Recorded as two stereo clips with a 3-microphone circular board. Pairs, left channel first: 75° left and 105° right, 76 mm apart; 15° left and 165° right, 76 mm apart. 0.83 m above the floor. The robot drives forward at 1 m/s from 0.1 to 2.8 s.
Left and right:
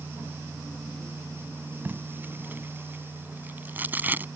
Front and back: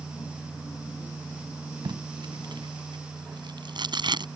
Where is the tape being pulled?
170° right.